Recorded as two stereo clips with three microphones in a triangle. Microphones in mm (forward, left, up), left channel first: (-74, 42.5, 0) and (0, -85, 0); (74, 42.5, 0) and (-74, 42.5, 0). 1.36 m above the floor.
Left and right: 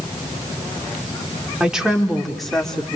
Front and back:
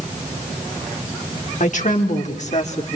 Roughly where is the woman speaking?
Ahead left.